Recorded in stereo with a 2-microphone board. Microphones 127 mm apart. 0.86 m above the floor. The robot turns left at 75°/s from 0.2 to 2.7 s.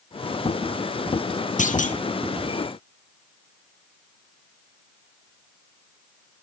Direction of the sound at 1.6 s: 80° left.